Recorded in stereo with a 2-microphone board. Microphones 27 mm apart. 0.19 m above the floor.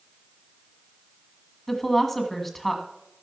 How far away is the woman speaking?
About 1.8 m.